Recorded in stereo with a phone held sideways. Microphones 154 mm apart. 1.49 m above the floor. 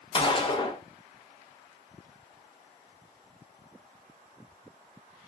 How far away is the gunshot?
About 1.0 m.